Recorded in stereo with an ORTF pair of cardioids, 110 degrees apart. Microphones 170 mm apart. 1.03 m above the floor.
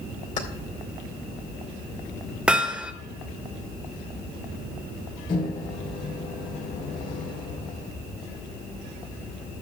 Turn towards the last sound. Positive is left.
turn(degrees=55)